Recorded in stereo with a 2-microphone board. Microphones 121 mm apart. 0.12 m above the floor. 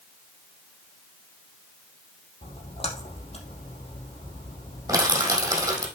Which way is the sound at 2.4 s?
50° left (ahead or behind).